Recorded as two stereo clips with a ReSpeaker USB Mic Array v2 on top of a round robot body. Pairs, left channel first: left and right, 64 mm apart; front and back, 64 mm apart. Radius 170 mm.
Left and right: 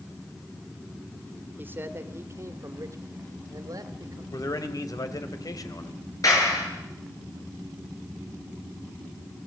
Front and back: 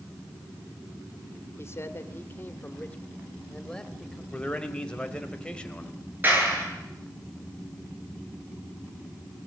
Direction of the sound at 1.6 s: 35° right.